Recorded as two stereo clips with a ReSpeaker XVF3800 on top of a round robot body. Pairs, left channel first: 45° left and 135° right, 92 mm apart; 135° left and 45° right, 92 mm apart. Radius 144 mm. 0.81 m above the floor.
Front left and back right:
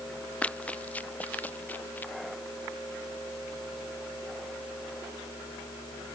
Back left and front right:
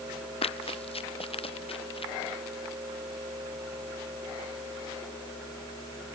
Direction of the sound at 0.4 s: 120° left.